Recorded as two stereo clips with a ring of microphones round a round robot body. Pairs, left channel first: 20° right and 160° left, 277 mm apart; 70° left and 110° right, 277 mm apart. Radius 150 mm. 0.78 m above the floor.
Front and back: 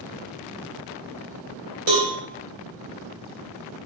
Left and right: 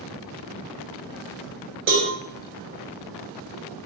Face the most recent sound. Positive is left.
turn(degrees=-160)